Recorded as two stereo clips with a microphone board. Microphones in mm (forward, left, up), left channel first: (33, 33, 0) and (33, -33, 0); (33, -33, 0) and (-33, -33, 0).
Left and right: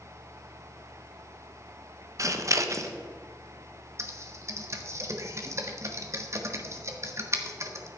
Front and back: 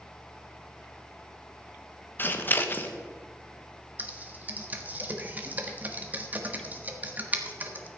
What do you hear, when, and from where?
2.2 s scissors: 55° right, 1.0 m
4.0 s typing on a keyboard: 120° right, 1.4 m